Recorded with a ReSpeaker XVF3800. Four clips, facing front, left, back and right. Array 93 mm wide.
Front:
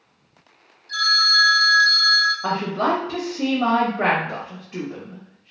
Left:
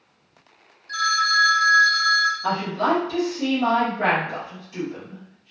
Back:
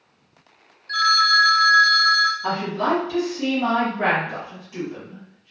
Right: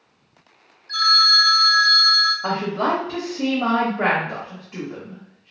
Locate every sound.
0.9 s a phone ringing: 175° right, 0.6 m
2.4 s a woman speaking: 35° right, 0.9 m